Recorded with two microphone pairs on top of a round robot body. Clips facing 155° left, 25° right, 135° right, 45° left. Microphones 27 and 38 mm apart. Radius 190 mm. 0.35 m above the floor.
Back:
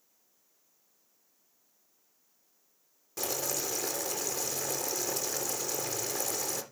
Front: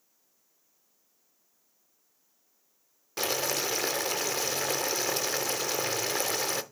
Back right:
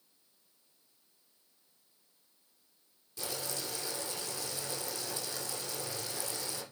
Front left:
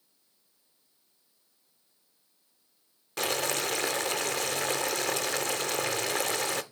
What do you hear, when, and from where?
3.2 s boiling: 20° left, 0.6 m